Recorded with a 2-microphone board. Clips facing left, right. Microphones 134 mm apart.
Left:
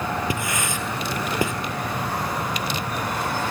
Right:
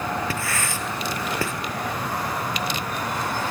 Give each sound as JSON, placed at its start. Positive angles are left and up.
{"t": 0.3, "sound": "writing", "side_deg": 15, "distance_m": 1.4}